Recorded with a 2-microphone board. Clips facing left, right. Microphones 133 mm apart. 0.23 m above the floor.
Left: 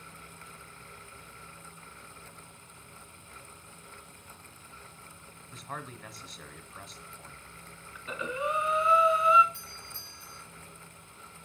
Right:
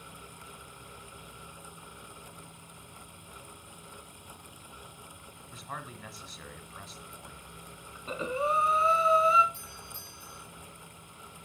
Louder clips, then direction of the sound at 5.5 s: Left 1 dB; centre (ahead or behind).